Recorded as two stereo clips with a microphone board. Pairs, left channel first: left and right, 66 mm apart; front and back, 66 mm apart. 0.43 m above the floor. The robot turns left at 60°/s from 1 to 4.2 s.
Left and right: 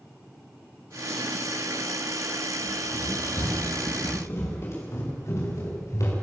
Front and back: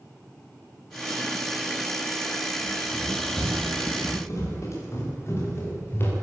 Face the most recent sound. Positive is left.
turn(degrees=55)